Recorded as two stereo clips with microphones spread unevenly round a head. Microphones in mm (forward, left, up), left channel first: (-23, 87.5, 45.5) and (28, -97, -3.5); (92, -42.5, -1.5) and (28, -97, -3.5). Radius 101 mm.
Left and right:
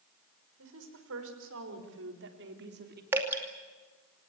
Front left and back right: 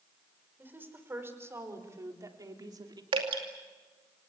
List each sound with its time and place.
0.6 s a woman speaking: 75° right, 5.5 m; by 3.0 s 110° right, 3 m
3.1 s dripping: 150° right, 2.5 m